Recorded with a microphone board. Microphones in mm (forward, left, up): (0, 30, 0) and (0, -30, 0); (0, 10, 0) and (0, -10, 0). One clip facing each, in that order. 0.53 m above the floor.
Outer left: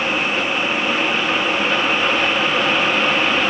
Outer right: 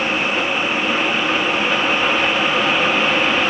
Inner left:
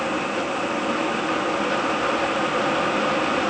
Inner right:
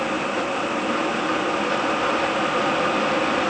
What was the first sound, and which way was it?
Only background noise.